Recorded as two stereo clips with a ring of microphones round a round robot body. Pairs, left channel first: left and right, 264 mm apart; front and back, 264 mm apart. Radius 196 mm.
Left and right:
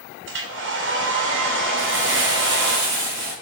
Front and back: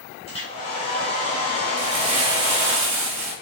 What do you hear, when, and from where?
0.3 s a hair dryer: 65° right, 1.0 m
1.8 s crumpling: 155° right, 1.9 m